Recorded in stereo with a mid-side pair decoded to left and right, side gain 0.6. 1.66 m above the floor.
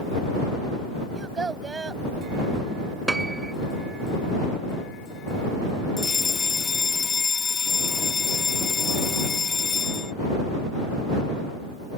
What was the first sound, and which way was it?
A child speaking, 25° right.